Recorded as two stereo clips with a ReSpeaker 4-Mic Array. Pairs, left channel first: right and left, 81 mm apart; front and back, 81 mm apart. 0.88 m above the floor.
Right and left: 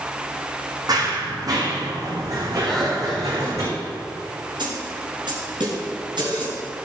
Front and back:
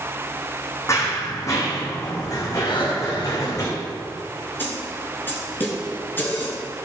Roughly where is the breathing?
Ahead.